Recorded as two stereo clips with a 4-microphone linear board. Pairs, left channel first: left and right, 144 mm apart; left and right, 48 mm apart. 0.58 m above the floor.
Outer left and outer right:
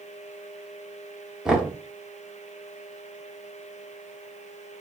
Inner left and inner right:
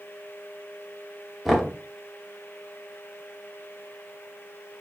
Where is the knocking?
5° right (ahead or behind), 0.8 m.